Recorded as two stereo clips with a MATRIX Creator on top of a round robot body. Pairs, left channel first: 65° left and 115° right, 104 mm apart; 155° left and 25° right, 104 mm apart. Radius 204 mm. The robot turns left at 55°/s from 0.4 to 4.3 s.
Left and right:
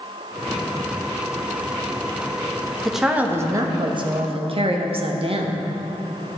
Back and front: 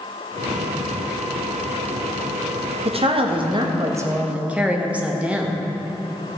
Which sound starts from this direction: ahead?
A woman speaking, at 2.9 s.